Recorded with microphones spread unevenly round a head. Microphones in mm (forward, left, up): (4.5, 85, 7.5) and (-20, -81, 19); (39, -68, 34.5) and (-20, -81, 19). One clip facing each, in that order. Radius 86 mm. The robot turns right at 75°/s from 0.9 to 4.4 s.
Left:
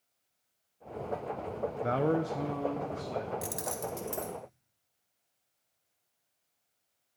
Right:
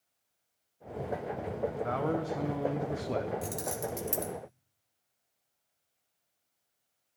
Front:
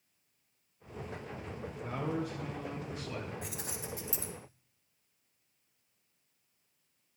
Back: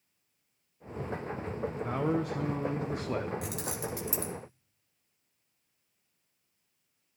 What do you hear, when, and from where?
1.8 s a man speaking: 125° left, 0.7 m; by 3.3 s 125° right, 0.7 m
3.4 s keys jangling: 155° left, 1.0 m; by 4.3 s 140° right, 1.0 m